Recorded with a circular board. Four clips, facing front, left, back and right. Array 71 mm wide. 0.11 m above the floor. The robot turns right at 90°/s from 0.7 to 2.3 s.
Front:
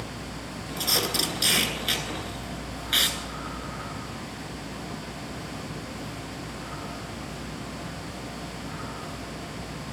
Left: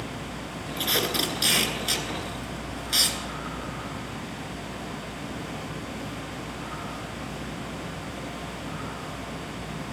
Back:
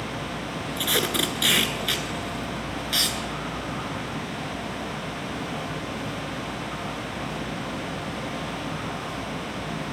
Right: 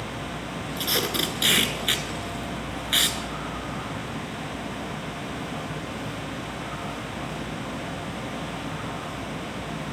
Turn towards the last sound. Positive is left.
turn(degrees=-65)